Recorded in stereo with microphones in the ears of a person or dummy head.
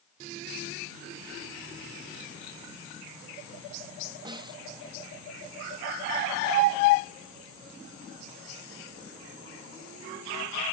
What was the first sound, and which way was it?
A snare drum, 20° right (ahead or behind).